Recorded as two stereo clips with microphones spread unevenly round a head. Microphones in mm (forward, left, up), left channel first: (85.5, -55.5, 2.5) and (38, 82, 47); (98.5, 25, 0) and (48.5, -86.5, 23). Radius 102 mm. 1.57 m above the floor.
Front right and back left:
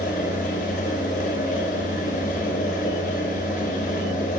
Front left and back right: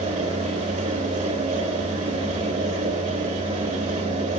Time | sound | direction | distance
0.0 | a fan | 125° right | 3.5 m